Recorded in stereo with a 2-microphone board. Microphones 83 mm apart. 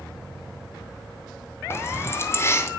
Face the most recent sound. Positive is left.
turn(degrees=30)  # may be behind; listen again after turning